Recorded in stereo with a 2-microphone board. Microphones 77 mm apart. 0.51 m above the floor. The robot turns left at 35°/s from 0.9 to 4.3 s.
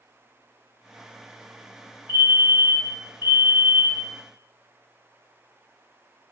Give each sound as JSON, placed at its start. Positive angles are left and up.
{"t": 2.1, "sound": "a fire alarm", "side_deg": -30, "distance_m": 1.7}